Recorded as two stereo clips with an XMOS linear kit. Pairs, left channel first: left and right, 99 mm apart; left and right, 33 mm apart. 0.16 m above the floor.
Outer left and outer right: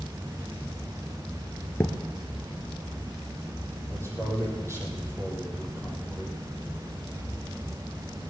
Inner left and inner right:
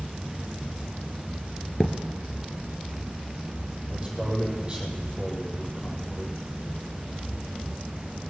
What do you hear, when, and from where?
1.8 s a thud: 20° left (ahead or behind), 1.2 m
3.9 s a man speaking: 25° right (ahead or behind), 5.5 m